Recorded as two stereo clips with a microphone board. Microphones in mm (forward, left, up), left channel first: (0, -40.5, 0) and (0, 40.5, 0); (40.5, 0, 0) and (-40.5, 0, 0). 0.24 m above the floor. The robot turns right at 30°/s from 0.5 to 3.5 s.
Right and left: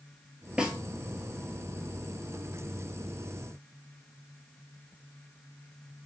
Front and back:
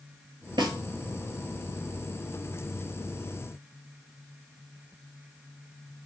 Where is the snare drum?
165° left, 0.7 m; by 0.8 s 170° left, 0.7 m.